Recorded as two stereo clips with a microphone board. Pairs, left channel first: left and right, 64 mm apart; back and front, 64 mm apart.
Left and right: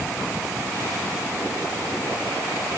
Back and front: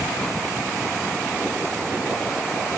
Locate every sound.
Only background noise.